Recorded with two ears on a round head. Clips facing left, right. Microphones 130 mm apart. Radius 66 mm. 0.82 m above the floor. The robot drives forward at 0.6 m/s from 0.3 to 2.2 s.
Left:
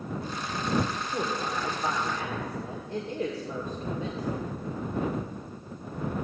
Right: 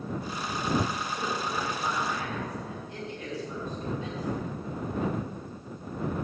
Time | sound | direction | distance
1.1 | a woman speaking | 70° left (ahead or behind) | 2.5 m